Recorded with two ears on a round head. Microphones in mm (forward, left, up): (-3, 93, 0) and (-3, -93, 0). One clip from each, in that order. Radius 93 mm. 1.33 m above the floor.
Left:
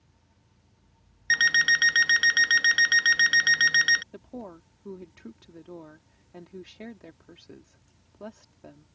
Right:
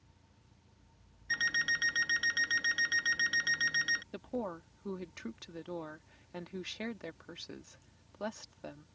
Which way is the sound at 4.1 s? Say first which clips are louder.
Right 3 dB; 50° right (ahead or behind).